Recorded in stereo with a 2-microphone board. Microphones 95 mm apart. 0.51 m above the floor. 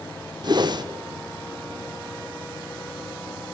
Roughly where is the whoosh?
Right.